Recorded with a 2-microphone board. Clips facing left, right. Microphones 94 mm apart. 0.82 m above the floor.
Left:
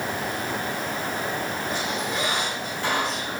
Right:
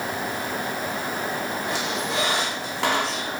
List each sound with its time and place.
1.7 s a squeak: 75° right (ahead or behind), 1.4 m